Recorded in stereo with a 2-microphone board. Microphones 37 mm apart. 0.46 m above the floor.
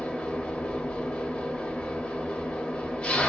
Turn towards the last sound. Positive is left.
turn(degrees=30)  # may be behind; listen again after turning